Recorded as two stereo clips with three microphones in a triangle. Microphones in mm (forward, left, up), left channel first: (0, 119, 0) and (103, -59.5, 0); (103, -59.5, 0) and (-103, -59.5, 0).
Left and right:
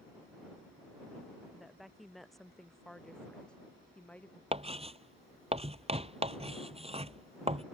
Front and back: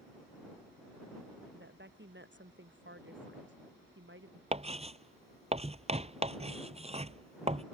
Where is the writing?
120° right.